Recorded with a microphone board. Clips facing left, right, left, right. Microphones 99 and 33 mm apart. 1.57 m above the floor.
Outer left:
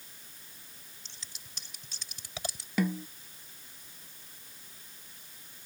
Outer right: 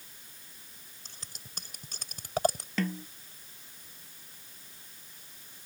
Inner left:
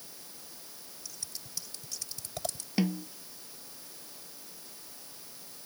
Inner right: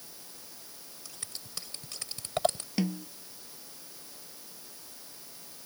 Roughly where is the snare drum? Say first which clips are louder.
Outer left 2 dB, inner left 2 dB; centre.